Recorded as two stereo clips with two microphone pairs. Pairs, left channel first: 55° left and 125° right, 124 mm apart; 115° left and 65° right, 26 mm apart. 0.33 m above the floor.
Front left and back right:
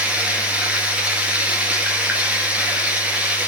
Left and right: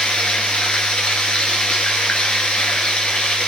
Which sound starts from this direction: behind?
Running water, at 0.0 s.